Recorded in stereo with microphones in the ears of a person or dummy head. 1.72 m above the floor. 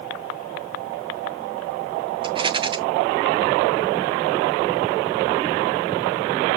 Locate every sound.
2.2 s a rattle: 25° right (ahead or behind), 0.6 m